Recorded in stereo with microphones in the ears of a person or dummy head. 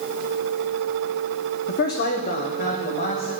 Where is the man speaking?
50° left (ahead or behind), 0.7 m; by 3.3 s 45° left (ahead or behind), 3 m.